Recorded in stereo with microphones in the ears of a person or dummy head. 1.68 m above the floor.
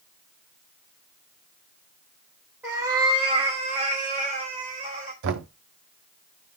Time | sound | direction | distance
2.6 | a cat meowing | 10° right (ahead or behind) | 1.1 m
5.2 | knocking | 65° right (ahead or behind) | 0.6 m